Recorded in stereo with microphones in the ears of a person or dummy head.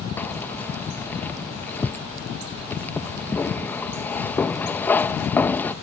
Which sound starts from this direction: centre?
Keys jangling, at 0.2 s.